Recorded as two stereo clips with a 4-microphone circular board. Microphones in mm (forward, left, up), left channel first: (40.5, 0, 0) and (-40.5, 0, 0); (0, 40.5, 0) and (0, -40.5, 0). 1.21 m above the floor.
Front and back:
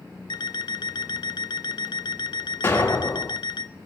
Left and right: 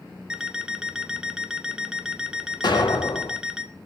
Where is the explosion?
65° left, 1.5 m.